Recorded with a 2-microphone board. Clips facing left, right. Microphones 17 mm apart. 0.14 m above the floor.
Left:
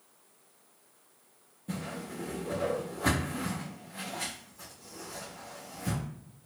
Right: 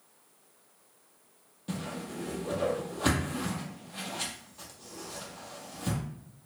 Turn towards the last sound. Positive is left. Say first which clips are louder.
# right 1 dB
turn(degrees=-55)  # may be behind; listen again after turning